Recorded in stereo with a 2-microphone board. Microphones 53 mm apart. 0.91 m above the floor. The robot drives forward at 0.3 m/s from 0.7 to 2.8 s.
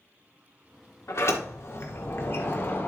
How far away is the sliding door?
About 1.4 m.